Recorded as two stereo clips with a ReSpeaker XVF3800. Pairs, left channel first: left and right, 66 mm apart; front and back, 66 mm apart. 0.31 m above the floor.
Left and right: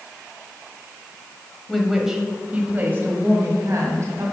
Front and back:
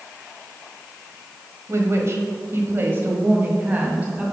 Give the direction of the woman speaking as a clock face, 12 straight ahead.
6 o'clock.